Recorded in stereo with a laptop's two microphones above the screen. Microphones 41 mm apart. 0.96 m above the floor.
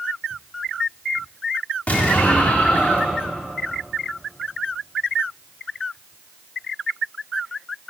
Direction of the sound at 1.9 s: 45° left (ahead or behind).